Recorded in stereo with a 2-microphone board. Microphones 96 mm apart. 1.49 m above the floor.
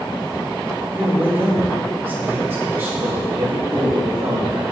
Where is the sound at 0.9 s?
20° right (ahead or behind), 2.5 m.